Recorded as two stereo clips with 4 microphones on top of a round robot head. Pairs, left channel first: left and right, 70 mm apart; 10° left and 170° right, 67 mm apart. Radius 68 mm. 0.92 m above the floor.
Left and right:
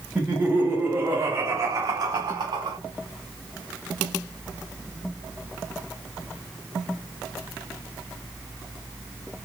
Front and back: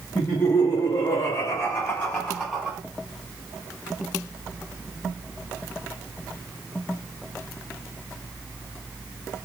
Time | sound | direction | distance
0.1 | laughter | 20° right | 1.6 m